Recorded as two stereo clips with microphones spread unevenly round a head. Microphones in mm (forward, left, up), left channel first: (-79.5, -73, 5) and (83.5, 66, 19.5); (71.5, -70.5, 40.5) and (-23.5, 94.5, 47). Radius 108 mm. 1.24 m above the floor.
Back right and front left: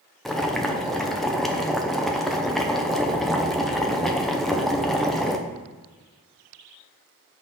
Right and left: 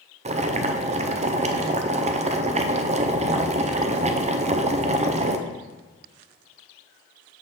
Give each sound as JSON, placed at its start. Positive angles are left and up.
{"t": 0.2, "sound": "boiling", "azimuth_deg": 140, "distance_m": 0.6}